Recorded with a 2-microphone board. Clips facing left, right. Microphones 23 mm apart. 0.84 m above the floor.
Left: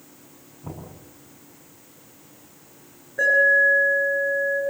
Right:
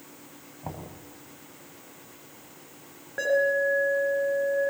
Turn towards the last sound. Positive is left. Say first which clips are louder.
# left 7 dB
turn(degrees=-45)  # may be behind; listen again after turning